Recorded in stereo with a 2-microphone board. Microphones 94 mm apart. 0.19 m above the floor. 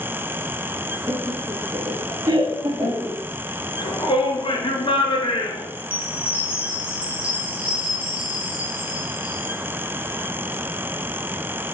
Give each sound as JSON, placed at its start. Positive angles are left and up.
{"t": 1.1, "sound": "laughter", "side_deg": -35, "distance_m": 1.7}
{"t": 3.8, "sound": "a shout", "side_deg": 60, "distance_m": 2.5}
{"t": 5.8, "sound": "a chime", "side_deg": -15, "distance_m": 3.0}